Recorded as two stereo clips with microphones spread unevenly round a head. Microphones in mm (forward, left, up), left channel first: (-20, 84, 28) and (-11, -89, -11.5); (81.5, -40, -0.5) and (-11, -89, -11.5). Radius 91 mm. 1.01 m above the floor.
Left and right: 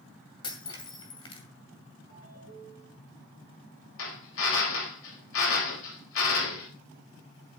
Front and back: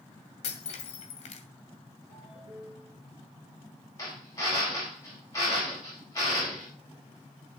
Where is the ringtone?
85° left, 9 m.